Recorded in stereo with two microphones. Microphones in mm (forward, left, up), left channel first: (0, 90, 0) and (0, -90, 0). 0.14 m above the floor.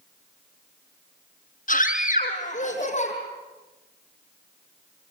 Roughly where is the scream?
Left.